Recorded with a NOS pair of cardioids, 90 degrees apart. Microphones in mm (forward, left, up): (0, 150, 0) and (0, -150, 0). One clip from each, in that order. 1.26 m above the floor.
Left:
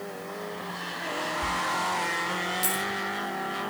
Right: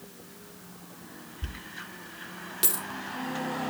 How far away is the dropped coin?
About 3.5 m.